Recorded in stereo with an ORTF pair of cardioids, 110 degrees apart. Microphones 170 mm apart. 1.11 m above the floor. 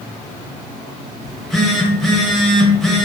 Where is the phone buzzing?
Straight ahead, 0.6 m.